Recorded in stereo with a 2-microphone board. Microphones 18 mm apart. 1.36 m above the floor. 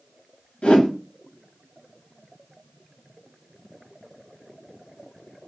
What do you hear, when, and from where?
0.6 s a whoosh: 75° left (ahead or behind), 0.9 m